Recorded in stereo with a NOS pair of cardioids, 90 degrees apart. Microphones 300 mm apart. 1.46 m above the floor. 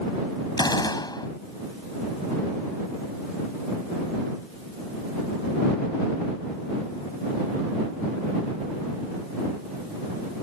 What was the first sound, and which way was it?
A gunshot, 15° left.